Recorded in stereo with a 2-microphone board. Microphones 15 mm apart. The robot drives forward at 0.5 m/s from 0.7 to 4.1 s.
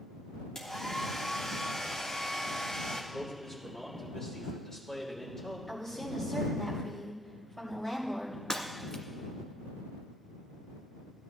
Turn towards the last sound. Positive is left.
turn(degrees=75)  # may be behind; listen again after turning